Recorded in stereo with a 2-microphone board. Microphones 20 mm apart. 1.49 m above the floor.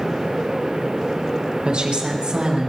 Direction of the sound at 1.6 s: 65° right (ahead or behind).